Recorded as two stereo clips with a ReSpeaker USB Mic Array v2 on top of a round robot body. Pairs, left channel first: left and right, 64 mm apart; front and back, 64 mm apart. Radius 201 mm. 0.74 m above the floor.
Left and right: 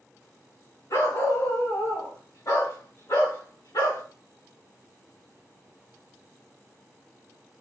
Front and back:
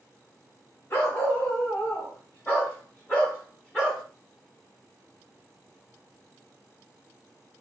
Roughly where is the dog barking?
Ahead left.